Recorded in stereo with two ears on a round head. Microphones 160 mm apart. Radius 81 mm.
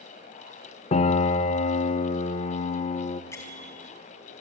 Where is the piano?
35° left (ahead or behind), 0.7 m.